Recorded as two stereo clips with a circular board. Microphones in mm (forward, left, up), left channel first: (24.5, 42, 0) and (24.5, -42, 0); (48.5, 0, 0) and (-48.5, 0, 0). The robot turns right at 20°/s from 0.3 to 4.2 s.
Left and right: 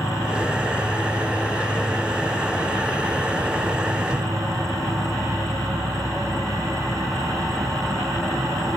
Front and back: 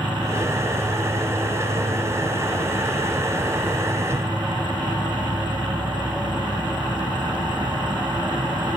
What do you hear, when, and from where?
0.0 s an insect: 140° left; by 8.8 s 140° right